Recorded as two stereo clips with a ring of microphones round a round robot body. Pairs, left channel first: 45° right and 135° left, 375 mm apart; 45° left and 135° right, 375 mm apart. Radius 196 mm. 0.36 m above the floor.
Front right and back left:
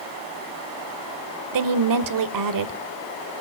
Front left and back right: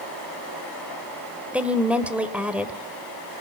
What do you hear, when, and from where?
1.5 s a woman speaking: 140° left, 1.5 m